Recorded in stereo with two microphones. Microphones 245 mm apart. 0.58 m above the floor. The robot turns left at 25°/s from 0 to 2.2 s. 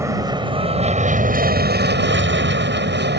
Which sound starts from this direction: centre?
An aircraft, at 0.0 s.